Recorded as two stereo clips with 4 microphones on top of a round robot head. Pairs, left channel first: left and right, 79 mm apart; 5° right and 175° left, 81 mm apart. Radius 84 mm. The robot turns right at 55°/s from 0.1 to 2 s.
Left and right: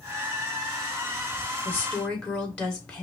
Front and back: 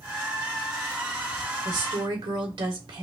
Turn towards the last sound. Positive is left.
turn(degrees=165)